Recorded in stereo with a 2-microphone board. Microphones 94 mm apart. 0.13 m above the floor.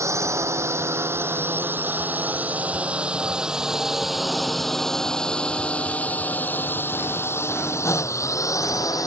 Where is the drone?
35° right (ahead or behind); by 9.1 s 40° left (ahead or behind).